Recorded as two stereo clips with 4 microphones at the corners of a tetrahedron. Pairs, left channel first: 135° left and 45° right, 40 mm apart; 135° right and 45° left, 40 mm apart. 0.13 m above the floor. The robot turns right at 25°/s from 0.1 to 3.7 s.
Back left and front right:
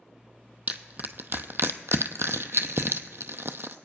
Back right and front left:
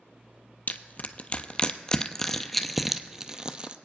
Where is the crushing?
95° right, 0.5 m; by 3.8 s 20° right, 0.5 m.